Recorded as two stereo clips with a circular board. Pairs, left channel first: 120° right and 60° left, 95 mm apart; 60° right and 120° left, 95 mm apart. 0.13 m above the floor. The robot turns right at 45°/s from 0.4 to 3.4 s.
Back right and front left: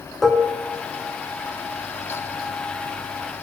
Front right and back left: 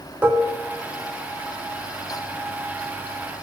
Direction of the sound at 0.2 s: 140° left.